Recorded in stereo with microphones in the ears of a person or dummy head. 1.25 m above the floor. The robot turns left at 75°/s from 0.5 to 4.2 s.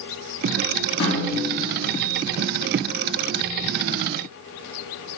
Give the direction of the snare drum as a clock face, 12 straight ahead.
8 o'clock.